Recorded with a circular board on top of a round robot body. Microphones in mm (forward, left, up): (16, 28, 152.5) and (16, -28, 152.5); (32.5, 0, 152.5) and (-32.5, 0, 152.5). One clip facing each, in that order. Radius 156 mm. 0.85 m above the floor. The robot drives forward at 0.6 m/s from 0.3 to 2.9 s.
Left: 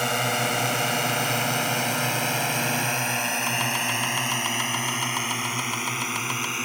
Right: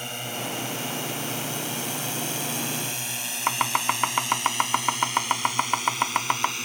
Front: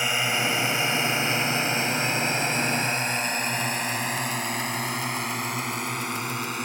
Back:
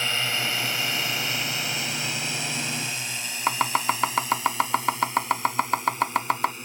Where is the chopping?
145° right.